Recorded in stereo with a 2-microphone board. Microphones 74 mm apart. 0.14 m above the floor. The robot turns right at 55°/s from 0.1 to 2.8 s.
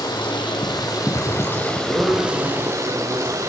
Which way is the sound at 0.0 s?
70° left.